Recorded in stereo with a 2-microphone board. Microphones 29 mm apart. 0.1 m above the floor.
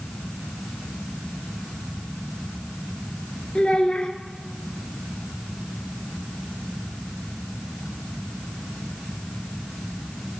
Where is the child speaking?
30° left (ahead or behind), 1.4 m.